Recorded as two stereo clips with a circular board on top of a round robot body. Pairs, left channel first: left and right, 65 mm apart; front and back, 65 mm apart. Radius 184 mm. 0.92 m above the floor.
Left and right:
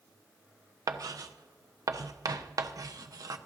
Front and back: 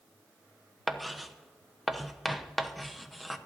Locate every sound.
0.9 s writing: 90° right, 1.0 m